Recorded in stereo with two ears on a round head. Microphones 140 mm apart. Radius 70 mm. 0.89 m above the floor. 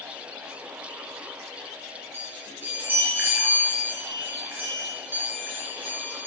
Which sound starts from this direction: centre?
A chime, at 2.1 s.